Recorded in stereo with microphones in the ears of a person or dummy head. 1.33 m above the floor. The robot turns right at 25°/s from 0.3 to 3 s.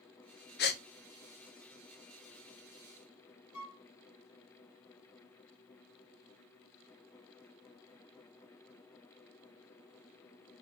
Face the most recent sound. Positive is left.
turn(degrees=65)  # may be behind; listen again after turning